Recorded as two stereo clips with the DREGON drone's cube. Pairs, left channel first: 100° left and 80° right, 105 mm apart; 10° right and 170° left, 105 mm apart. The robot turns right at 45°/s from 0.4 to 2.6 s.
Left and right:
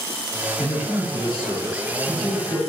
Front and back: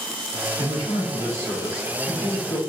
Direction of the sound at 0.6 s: 160° right.